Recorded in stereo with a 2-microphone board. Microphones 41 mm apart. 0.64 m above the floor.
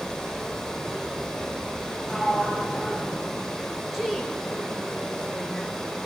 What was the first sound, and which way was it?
Running water, 5° left (ahead or behind).